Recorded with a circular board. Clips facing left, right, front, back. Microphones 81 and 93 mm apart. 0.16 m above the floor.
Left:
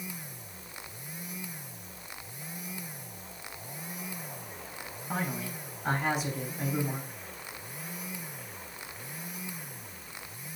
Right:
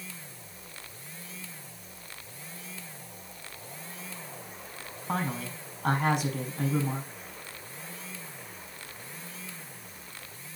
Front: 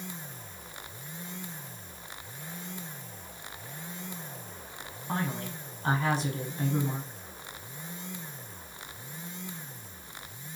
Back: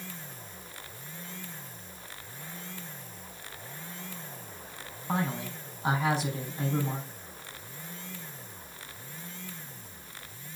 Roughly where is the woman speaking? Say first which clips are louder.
Right 2 dB, back 2 dB; right.